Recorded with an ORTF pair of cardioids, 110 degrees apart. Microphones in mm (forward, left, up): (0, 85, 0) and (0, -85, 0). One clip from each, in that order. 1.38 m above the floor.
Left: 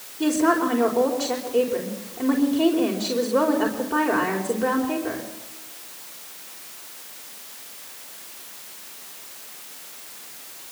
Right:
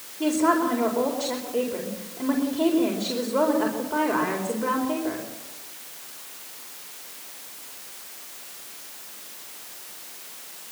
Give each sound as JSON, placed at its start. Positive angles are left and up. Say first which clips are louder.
{"t": 0.2, "sound": "a woman speaking", "louder": "left 1 dB", "azimuth_deg": 10, "distance_m": 4.5}